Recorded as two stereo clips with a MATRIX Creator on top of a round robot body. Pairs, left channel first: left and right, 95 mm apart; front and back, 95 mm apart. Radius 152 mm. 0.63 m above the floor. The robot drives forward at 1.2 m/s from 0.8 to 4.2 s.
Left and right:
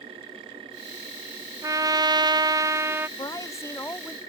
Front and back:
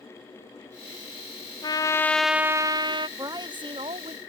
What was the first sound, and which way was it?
A trumpet, 35° right.